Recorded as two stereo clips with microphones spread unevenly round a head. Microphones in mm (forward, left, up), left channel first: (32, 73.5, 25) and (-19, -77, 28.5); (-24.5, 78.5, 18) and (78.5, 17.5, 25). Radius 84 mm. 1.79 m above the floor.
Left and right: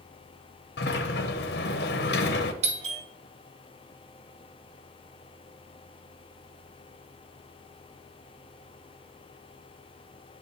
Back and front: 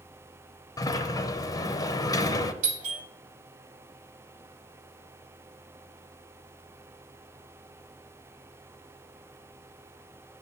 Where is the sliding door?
90° left, 0.7 m.